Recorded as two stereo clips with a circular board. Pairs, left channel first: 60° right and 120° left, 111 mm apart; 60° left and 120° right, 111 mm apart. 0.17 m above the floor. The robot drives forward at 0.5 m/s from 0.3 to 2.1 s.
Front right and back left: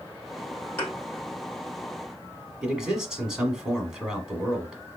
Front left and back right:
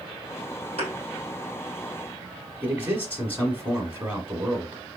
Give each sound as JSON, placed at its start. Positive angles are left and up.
{"t": 0.8, "sound": "a thud", "azimuth_deg": -130, "distance_m": 2.0}
{"t": 2.6, "sound": "a man speaking", "azimuth_deg": -160, "distance_m": 1.2}